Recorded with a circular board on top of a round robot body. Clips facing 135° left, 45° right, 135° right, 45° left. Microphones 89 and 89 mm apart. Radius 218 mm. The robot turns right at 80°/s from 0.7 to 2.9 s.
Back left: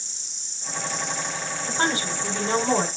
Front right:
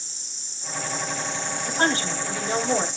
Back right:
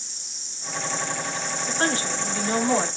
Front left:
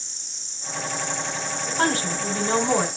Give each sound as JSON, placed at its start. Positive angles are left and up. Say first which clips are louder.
{"t": 0.0, "sound": "an insect", "louder": "front right 1 dB, back right 1 dB", "azimuth_deg": -50, "distance_m": 3.0}
{"t": 1.7, "sound": "a woman speaking", "louder": "front right 2 dB, front left 2 dB", "azimuth_deg": 30, "distance_m": 5.5}